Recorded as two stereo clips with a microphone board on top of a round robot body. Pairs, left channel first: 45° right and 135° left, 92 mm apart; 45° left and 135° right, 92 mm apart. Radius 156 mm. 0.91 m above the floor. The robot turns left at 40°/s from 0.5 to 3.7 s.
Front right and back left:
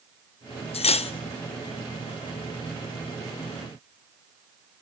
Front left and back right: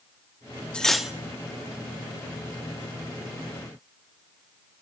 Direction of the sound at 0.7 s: 35° right.